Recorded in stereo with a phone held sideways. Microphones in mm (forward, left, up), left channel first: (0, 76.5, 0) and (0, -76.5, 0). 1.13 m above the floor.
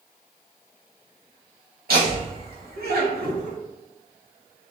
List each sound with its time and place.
1.9 s laughter: 85° right, 1.7 m; by 3.6 s 50° right (ahead or behind), 0.5 m